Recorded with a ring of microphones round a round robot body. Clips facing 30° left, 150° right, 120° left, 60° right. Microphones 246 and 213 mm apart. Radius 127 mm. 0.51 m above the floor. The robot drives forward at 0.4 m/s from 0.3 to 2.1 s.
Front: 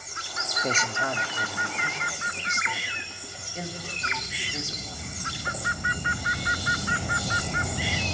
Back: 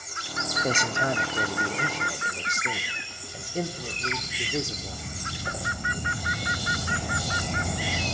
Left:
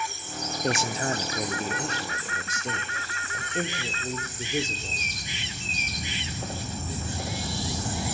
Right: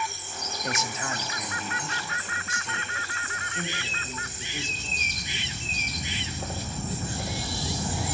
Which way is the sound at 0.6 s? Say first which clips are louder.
Back 2 dB, left 6 dB; 140° left.